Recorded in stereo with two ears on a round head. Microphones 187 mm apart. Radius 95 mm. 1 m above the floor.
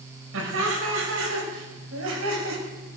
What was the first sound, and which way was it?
Laughter, 75° right (ahead or behind).